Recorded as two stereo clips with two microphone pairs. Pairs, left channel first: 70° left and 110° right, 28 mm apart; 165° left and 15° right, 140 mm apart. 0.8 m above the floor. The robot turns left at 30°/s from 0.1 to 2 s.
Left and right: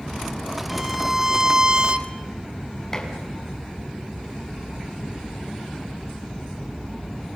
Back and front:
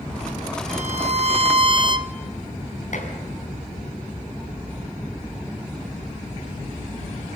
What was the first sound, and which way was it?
A violin, 25° right.